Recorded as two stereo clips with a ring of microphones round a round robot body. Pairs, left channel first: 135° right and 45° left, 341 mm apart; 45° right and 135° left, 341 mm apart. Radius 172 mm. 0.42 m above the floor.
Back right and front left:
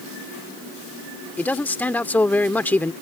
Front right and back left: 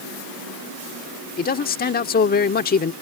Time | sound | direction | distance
1.4 | a man speaking | 55° right | ?